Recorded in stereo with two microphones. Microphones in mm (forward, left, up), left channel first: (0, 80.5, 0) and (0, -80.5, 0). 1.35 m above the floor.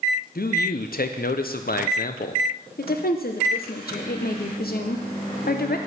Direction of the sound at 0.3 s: 70° left (ahead or behind).